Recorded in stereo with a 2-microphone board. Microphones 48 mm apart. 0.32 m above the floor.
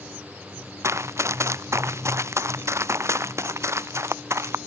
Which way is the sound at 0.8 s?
85° right.